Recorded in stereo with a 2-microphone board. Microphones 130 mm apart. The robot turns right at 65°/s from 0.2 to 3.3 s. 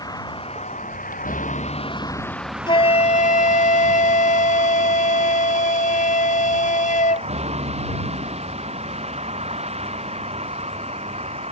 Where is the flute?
40° left; by 7.3 s 80° left.